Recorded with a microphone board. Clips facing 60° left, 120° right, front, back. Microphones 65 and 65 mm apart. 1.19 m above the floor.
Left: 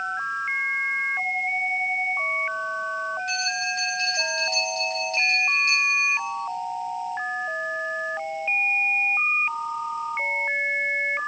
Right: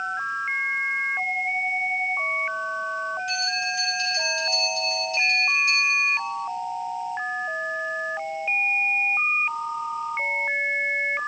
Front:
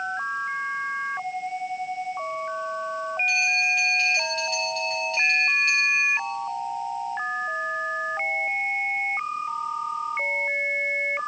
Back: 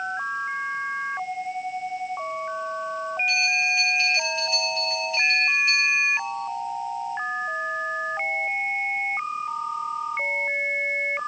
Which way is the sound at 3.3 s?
95° left.